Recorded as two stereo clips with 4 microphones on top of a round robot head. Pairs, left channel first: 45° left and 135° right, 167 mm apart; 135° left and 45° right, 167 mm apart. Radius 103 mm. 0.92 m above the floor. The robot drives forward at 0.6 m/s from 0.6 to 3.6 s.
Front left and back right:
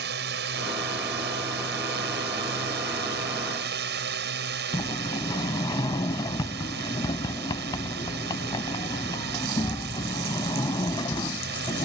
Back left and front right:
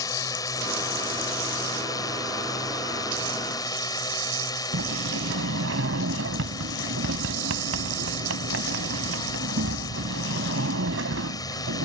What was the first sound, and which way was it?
A drone, 155° right.